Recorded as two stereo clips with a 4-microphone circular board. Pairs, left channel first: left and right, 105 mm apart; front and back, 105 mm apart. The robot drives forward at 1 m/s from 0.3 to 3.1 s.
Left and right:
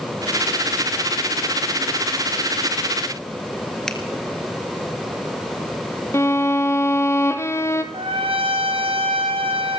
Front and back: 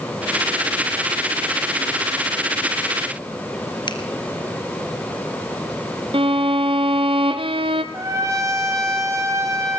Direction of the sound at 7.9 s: 120° right.